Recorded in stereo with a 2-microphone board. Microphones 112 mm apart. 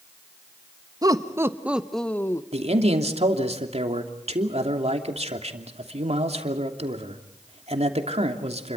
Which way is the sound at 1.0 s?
35° right (ahead or behind).